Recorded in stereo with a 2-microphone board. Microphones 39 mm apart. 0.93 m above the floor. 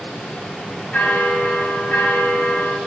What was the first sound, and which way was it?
A bell, 55° left (ahead or behind).